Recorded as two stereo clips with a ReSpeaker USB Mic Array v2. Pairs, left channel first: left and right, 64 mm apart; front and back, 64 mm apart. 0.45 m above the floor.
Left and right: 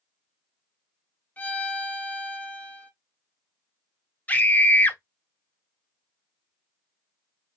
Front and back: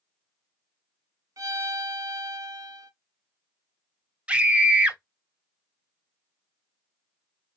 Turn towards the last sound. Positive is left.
turn(degrees=130)